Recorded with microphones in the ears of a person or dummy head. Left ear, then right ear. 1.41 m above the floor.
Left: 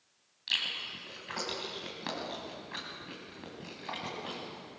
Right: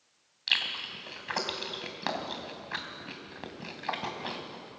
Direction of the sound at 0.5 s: 30° right (ahead or behind).